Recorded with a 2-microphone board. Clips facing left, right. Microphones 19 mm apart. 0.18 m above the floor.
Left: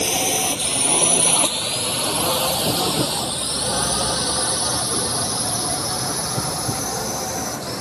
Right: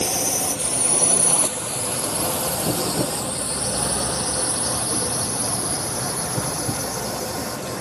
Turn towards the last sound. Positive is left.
turn(degrees=55)  # may be behind; listen again after turning